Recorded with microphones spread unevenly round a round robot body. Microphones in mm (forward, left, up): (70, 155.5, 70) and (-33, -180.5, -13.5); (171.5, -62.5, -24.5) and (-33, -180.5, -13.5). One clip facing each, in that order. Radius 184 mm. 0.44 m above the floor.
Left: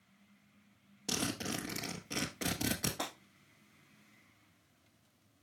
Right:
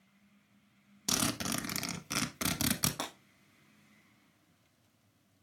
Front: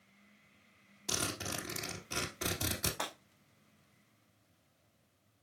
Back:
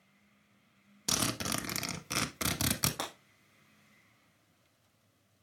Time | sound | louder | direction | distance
1.1 | a zipper | right 2 dB, back 5 dB | 175° right | 0.7 m
3.0 | breaking glass | even, back 2 dB | 170° right | 2.5 m